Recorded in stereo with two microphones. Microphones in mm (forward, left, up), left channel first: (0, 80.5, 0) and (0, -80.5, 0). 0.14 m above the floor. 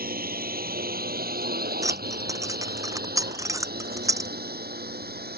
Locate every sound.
0.0 s a drone: 65° right (ahead or behind); by 5.4 s 75° right (ahead or behind)
1.8 s keys jangling: 20° right (ahead or behind)